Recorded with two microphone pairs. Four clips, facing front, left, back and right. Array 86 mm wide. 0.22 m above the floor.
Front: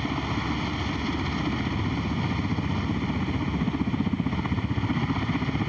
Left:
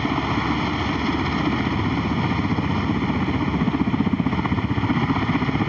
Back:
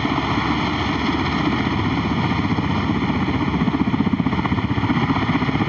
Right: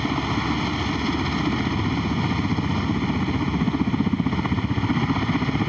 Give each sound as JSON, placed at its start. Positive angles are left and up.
{"t": 0.0, "sound": "a helicopter", "azimuth_deg": 160}